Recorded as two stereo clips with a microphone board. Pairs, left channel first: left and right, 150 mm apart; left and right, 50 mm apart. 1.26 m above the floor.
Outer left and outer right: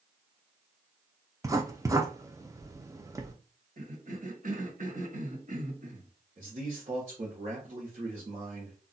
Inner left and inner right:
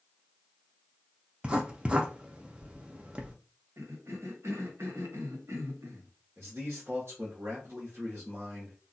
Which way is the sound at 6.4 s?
55° right (ahead or behind).